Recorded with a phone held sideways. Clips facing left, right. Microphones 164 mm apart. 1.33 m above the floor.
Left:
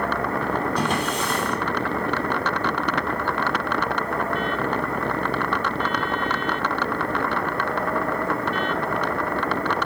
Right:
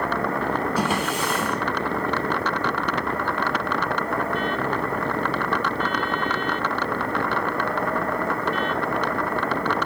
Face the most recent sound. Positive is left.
turn(degrees=-5)  # may be behind; listen again after turning